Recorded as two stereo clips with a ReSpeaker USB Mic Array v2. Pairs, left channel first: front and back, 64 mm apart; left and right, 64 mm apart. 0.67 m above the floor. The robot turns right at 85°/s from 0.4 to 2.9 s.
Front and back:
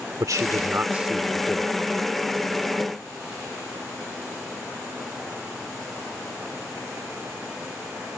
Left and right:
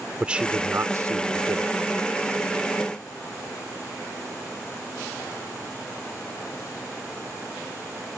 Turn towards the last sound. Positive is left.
turn(degrees=50)